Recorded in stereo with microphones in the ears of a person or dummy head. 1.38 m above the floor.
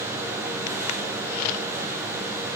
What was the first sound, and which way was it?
Only background noise.